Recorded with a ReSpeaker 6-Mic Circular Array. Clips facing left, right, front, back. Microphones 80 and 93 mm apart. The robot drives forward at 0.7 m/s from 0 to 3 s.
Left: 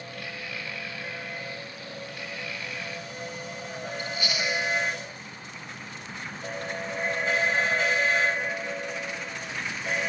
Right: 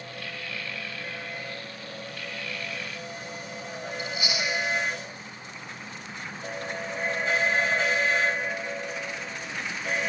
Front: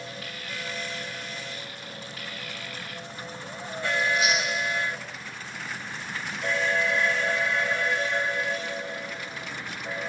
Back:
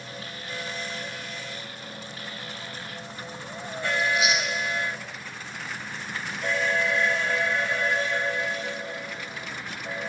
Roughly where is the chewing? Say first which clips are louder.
Even, even; ahead right.